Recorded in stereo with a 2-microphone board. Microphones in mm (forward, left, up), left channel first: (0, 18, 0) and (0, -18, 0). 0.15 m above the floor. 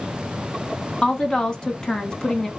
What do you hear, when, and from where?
1.0 s a woman speaking: 20° left (ahead or behind), 1.1 m